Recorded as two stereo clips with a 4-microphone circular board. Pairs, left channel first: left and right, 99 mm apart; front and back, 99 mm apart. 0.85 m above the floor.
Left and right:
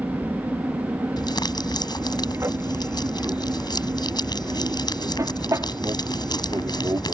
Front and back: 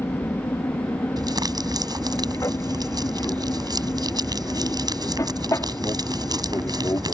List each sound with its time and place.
0.0 s an aircraft: 35° right; by 7.1 s 45° right
1.2 s crumpling: 135° left